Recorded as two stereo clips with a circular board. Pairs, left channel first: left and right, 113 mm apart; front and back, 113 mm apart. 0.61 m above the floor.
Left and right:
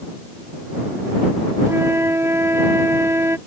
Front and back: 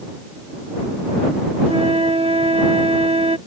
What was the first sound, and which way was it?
A flute, 155° right.